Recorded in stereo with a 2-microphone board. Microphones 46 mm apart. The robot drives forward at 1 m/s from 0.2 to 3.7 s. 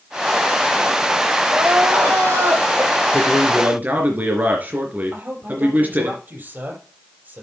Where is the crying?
65° right (ahead or behind), 5.5 m; by 3.0 s 80° right, 5.5 m.